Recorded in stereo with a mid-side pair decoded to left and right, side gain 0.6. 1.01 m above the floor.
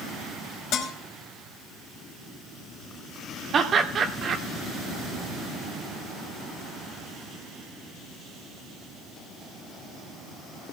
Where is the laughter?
40° right, 2 m.